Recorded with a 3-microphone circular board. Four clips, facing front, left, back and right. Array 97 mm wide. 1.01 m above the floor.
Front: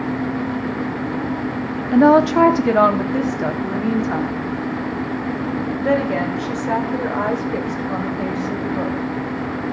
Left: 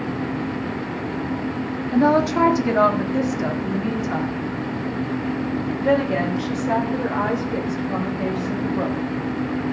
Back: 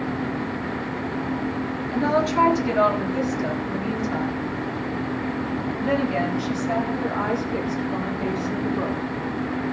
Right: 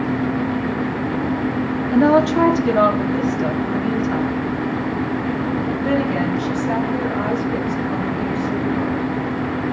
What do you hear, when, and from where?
1.9 s a woman speaking: 10° right, 1.5 m; by 9.0 s 20° left, 5 m